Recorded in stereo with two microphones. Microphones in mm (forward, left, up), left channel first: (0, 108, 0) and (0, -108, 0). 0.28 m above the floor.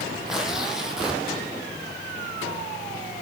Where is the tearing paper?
5° right (ahead or behind), 2 m.